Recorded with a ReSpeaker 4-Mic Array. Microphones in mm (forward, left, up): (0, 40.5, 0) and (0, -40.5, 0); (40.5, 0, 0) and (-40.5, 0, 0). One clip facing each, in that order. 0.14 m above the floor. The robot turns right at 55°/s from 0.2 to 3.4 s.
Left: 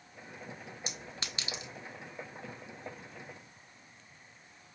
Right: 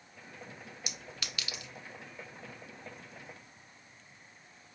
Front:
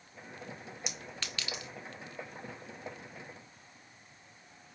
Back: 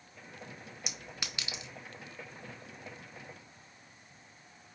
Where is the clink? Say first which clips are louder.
Left 1 dB, even; 95° left, 0.7 m; by 1.7 s 140° left, 0.7 m.